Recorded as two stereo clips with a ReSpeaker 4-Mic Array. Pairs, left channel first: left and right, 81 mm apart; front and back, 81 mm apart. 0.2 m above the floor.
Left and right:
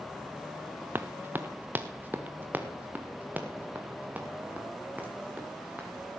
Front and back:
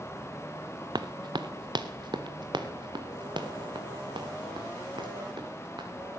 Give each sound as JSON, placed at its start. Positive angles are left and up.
{"t": 0.9, "sound": "running footsteps", "azimuth_deg": -155, "distance_m": 0.7}